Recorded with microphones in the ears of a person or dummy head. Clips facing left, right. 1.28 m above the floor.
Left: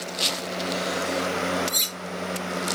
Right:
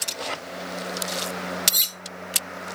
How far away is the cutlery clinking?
About 0.7 m.